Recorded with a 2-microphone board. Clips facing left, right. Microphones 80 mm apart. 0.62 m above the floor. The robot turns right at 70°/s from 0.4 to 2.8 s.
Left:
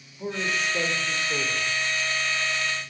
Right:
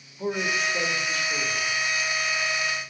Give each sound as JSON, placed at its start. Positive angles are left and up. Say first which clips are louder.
{"t": 0.2, "sound": "a man speaking", "louder": "right 2 dB", "azimuth_deg": -20, "distance_m": 1.9}